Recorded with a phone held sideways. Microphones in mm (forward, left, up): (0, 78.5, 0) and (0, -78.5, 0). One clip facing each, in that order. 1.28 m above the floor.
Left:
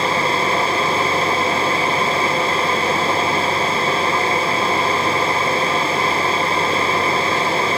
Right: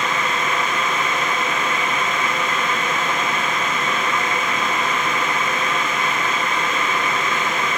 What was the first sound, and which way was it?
A fan, 30° left (ahead or behind).